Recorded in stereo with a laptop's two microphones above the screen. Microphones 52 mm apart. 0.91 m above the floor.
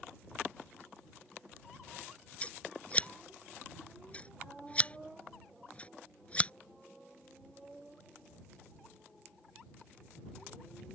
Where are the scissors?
25° left (ahead or behind).